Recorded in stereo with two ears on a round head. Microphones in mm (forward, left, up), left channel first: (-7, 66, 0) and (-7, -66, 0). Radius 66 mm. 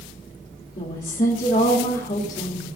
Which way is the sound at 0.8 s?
55° left (ahead or behind).